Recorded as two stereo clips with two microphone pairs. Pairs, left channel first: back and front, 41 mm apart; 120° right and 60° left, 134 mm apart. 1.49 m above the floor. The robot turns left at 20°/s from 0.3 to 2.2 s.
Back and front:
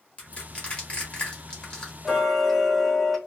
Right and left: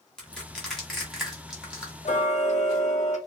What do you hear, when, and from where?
0.2 s crushing: 165° left, 1.1 m; by 1.9 s 135° left, 1.1 m
2.0 s ticking: 90° right, 0.7 m